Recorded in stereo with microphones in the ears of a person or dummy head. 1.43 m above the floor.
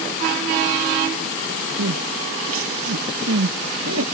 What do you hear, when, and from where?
1.8 s crying: 80° right